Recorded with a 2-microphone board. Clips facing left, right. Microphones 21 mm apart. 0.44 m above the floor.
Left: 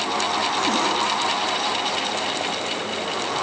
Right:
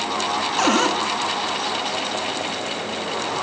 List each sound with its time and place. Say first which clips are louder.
0.6 s a cupboard door: right 6 dB; 45° right (ahead or behind), 3 m